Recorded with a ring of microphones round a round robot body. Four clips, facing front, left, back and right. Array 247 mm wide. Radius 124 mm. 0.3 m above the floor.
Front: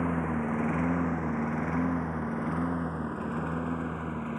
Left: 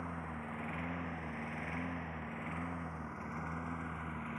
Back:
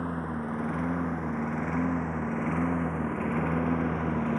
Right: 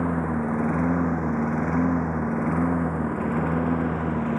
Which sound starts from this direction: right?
A lawn mower, at 0.0 s.